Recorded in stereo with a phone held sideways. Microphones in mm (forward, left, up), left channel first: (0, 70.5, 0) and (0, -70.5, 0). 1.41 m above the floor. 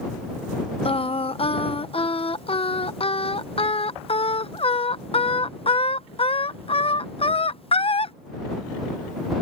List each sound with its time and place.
0.8 s singing: 40° left (ahead or behind)